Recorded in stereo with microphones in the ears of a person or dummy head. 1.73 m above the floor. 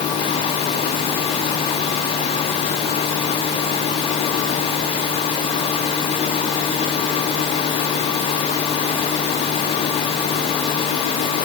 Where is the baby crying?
No baby crying in this recording.